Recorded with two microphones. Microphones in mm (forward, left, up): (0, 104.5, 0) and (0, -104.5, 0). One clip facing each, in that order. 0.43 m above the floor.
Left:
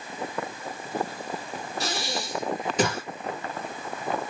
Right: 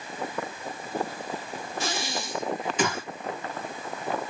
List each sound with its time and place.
1.8 s breathing: 40° left (ahead or behind), 4 m